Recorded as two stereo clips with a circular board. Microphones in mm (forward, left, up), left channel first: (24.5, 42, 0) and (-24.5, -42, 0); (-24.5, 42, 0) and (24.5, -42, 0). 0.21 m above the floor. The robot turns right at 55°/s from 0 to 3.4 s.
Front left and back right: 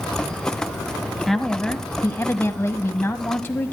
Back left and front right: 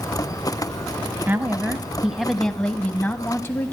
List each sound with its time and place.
1.3 s a woman speaking: 25° right, 1.2 m; by 3.7 s 95° left, 1.2 m